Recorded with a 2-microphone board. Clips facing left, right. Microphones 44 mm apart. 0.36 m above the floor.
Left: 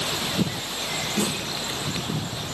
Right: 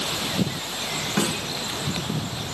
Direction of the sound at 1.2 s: 75° right (ahead or behind).